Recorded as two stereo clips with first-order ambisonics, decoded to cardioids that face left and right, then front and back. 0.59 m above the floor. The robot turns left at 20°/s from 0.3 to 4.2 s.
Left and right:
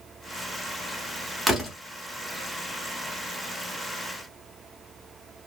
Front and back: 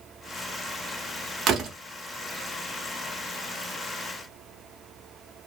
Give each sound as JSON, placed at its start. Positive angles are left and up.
{"t": 1.5, "sound": "a door slam", "azimuth_deg": -170, "distance_m": 0.7}